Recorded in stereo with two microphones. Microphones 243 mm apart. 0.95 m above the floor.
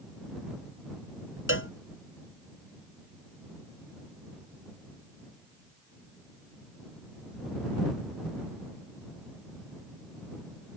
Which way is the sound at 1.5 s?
55° left (ahead or behind).